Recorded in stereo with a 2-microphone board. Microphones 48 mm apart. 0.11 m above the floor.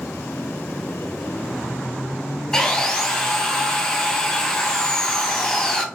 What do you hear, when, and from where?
2.5 s sawing: 15° left (ahead or behind), 0.6 m